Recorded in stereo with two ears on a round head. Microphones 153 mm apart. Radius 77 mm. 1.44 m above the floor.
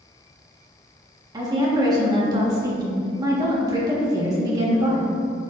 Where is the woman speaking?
25° right (ahead or behind), 1.4 m.